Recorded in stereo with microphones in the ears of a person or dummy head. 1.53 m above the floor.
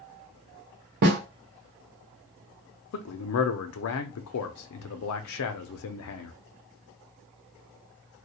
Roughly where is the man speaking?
Left.